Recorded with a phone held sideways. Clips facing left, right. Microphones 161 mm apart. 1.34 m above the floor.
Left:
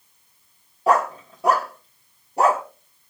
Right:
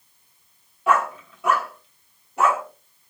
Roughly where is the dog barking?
Left.